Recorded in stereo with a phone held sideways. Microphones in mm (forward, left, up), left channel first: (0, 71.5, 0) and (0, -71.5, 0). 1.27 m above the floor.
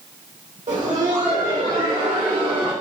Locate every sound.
0.7 s laughter: 60° right (ahead or behind), 2 m; by 2.7 s 85° right, 3 m